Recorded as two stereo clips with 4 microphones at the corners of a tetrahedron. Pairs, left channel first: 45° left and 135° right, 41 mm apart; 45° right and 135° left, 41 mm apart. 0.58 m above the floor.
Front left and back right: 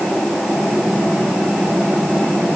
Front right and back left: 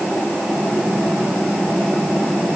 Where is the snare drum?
I don't hear a snare drum.